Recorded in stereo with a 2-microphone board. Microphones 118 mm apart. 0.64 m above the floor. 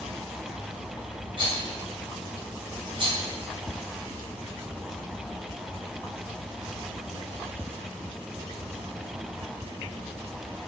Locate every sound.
1.4 s a rattle: 50° right (ahead or behind), 3 m